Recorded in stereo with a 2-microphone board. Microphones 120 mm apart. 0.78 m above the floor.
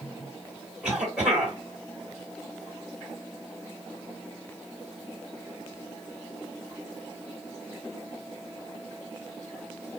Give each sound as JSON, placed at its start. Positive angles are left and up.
{"t": 0.8, "sound": "a cough", "side_deg": -10, "distance_m": 2.0}